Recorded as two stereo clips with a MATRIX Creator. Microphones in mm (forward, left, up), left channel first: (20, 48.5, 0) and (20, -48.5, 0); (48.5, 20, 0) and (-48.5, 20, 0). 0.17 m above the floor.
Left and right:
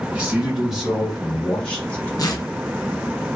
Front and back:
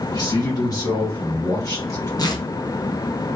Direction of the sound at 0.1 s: 20° right.